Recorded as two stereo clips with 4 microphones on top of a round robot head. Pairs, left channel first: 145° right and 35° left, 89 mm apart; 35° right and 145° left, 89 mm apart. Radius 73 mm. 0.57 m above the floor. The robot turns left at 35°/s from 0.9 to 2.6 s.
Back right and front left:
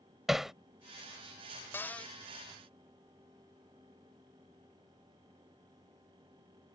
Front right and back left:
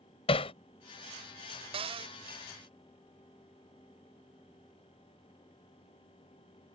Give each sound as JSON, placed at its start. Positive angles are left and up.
{"t": 0.3, "sound": "hammering", "azimuth_deg": -55}
{"t": 1.7, "sound": "a cupboard door", "azimuth_deg": 145}